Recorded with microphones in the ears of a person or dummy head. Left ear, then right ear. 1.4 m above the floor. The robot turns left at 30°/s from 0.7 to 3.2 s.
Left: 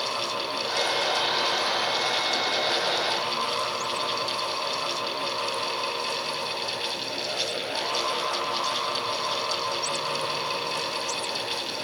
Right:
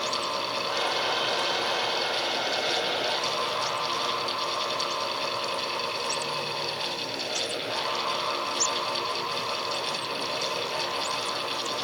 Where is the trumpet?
No trumpet in this recording.